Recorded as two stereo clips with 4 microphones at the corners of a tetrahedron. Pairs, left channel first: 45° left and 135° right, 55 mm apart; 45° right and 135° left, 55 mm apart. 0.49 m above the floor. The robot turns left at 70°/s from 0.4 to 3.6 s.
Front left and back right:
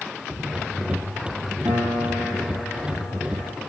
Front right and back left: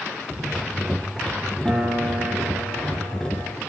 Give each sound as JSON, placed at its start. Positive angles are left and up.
{"t": 1.6, "sound": "a piano", "azimuth_deg": -155, "distance_m": 9.5}